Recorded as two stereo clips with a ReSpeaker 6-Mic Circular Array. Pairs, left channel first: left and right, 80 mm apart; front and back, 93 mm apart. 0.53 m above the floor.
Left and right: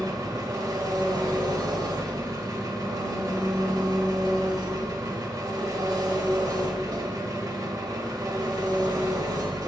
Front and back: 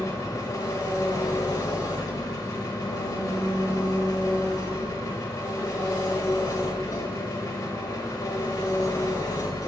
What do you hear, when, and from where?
0.0 s an engine running: 50° right, 1.0 m